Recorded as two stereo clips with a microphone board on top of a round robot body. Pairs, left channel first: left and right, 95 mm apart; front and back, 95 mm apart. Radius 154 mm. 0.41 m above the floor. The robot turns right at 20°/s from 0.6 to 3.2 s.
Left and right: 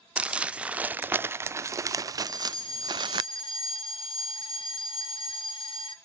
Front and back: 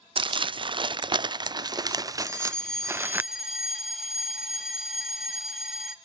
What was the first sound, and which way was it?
Crumpling, 165° right.